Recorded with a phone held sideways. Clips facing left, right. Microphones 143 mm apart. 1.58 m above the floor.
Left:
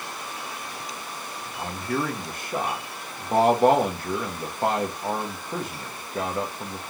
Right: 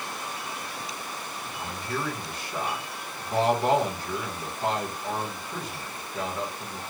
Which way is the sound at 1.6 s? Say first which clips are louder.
Left 5 dB; 50° left (ahead or behind).